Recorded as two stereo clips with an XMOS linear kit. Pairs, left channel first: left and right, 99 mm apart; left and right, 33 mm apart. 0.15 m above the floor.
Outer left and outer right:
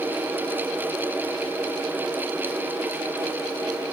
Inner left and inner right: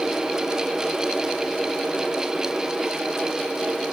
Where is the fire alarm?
No fire alarm in this recording.